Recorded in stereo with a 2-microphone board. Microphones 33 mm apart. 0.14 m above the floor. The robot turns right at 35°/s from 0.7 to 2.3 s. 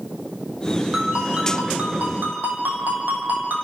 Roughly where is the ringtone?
Behind.